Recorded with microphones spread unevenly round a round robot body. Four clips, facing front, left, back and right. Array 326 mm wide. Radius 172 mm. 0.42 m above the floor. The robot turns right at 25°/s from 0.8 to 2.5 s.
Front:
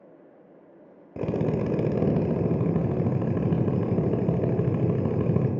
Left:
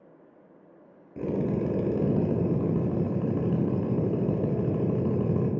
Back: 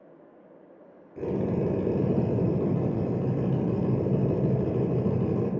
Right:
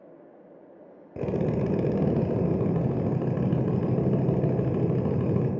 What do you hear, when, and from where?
1.2 s a drill: 55° right, 1.1 m; by 5.5 s 25° right, 1.1 m